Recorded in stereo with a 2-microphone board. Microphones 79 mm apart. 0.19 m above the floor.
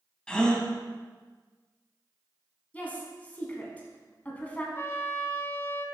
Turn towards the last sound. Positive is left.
turn(degrees=30)  # may be behind; listen again after turning